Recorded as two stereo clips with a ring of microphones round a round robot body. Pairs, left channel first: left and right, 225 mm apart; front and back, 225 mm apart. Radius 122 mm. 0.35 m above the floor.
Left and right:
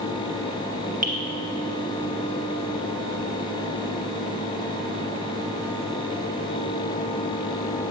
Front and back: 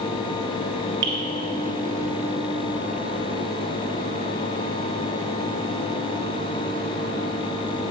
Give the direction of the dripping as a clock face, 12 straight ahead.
5 o'clock.